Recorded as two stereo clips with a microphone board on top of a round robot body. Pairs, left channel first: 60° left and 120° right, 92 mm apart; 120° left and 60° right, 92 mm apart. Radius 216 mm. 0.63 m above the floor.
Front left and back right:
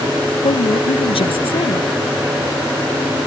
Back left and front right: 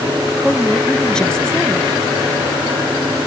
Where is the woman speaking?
40° left.